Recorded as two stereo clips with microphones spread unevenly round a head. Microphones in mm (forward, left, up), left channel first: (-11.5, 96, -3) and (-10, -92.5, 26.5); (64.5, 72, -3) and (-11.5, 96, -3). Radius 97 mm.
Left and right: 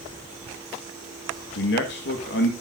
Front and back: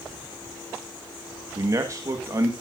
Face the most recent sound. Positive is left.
turn(degrees=115)